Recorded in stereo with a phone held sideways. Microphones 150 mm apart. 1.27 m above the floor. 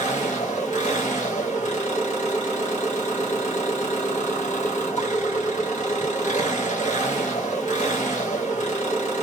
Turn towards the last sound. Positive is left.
turn(degrees=55)  # may be behind; listen again after turning